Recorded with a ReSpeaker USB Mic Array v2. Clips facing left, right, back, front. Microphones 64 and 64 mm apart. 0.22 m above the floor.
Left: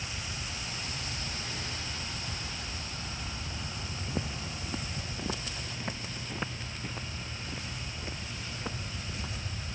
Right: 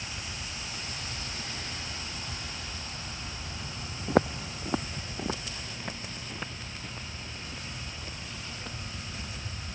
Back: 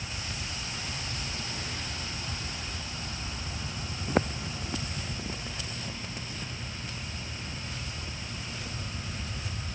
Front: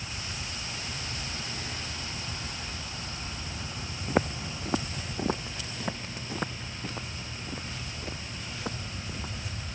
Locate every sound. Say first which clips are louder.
4.1 s footsteps: right 13 dB, front 1 dB; 90° right; by 9.3 s 25° left